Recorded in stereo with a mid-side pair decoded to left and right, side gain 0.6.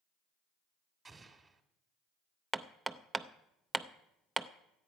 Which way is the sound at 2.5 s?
15° right.